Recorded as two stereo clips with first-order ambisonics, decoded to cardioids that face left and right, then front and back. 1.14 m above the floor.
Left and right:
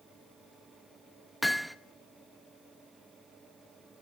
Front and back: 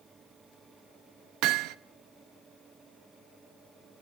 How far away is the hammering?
About 0.6 m.